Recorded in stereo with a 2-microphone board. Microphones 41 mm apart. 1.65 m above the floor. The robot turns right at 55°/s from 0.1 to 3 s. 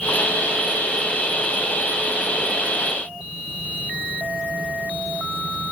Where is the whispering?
No whispering in this recording.